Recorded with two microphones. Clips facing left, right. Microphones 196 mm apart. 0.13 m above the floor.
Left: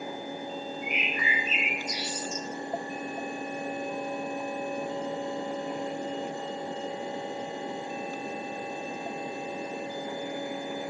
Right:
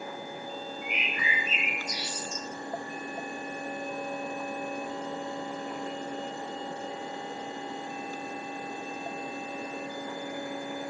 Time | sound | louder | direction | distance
0.8 | a bird | left 3 dB | 40° left (ahead or behind) | 3 m